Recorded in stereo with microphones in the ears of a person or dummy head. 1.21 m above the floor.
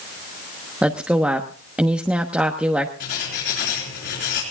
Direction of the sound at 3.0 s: 60° left (ahead or behind).